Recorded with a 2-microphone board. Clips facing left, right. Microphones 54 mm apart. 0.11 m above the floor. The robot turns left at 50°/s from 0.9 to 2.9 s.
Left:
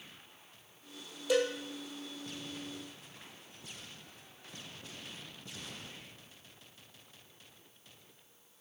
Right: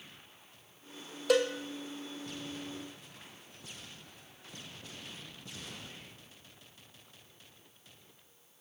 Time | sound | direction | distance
1.3 | a cowbell | 65° right (ahead or behind) | 0.8 m